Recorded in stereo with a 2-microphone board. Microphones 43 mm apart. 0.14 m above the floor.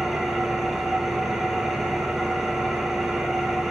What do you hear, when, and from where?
0.0 s an engine running: 10° right (ahead or behind), 1.4 m